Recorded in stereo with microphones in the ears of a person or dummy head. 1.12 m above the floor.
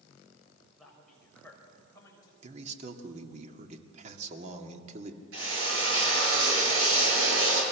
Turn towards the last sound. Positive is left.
turn(degrees=-80)